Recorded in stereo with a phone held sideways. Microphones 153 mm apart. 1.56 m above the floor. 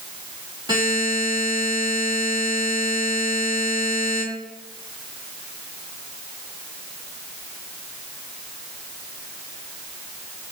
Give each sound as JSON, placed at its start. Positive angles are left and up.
{"t": 0.7, "sound": "a buzzer", "side_deg": -30, "distance_m": 3.0}